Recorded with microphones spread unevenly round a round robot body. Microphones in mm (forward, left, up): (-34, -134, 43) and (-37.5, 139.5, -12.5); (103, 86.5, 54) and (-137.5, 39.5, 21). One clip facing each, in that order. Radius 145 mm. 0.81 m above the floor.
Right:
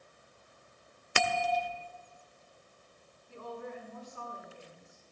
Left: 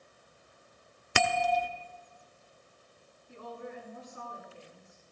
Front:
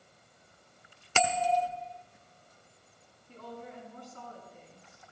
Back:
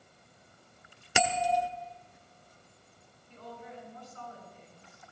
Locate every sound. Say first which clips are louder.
1.1 s a bell: left 3 dB, even; 110° left, 1.1 m
3.3 s a woman speaking: right 1 dB, front 2 dB; 20° left, 7.5 m